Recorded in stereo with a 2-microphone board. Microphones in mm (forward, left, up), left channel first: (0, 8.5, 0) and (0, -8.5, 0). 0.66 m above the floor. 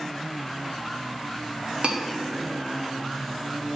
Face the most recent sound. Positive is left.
turn(degrees=-65)  # may be behind; listen again after turning